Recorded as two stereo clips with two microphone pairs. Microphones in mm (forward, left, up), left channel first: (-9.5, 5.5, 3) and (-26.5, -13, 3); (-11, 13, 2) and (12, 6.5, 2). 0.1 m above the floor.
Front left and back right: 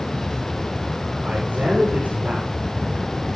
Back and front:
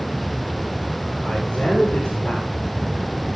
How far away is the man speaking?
About 7 m.